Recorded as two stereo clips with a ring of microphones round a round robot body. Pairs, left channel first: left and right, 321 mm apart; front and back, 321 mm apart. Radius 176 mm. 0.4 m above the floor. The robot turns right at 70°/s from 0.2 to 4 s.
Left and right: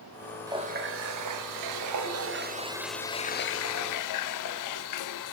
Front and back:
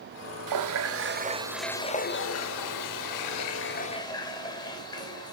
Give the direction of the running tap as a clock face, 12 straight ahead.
6 o'clock.